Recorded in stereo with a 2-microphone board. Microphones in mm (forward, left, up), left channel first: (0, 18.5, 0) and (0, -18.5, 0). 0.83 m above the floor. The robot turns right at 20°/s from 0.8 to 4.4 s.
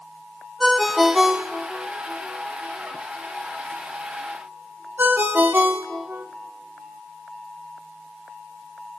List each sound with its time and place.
0.6 s a ringtone: 5° right (ahead or behind), 0.9 m; by 6.3 s 75° right (ahead or behind), 0.9 m